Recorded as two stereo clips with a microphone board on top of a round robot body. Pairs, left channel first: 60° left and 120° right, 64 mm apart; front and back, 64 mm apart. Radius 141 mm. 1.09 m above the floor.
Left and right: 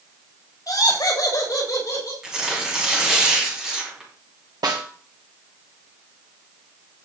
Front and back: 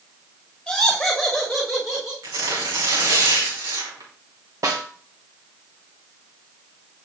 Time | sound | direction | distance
0.7 | laughter | 85° left | 6.5 m
2.2 | tearing paper | 160° left | 3.5 m
4.6 | a snare drum | 140° right | 1.8 m